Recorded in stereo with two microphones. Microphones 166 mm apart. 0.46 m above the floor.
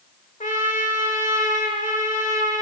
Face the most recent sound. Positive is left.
turn(degrees=50)  # may be behind; listen again after turning